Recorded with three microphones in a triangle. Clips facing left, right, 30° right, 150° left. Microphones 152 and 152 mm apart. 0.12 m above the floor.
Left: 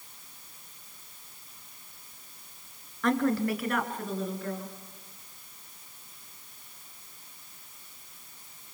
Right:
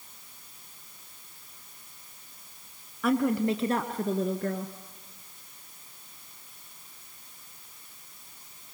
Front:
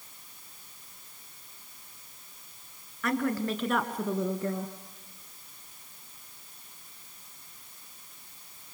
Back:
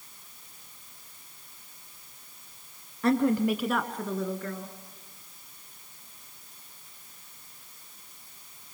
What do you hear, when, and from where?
3.0 s a woman speaking: 170° right, 2 m; by 4.7 s 80° right, 2.5 m